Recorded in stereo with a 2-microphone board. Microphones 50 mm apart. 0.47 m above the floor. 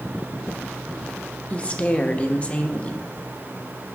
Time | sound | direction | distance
1.5 | a woman speaking | 25° left (ahead or behind) | 0.8 m